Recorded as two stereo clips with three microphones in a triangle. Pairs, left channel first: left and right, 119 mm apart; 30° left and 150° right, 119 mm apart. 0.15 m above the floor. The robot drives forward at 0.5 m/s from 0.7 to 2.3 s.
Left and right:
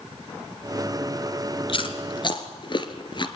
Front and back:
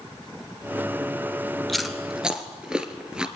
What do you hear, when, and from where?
1.7 s chewing: 120° left, 1.5 m; by 3.3 s 130° left, 1.7 m